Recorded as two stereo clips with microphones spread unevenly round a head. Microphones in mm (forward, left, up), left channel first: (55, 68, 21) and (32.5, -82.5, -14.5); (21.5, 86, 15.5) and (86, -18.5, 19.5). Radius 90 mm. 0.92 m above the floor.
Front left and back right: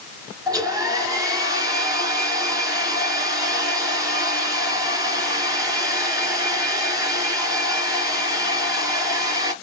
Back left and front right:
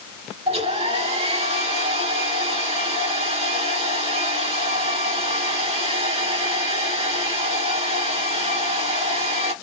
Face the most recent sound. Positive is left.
turn(degrees=-25)